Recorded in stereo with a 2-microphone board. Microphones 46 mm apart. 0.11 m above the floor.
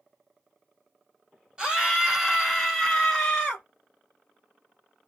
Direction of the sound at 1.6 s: 15° right (ahead or behind).